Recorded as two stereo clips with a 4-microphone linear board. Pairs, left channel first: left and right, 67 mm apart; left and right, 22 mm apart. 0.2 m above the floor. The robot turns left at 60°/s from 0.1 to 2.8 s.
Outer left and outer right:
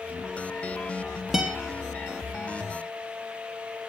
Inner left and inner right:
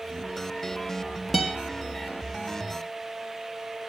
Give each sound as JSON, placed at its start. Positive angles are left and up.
{"t": 1.3, "sound": "a guitar", "side_deg": -5, "distance_m": 3.0}